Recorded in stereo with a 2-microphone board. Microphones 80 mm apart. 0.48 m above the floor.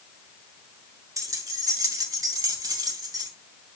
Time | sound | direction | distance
1.2 | keys jangling | 50° right (ahead or behind) | 1.5 m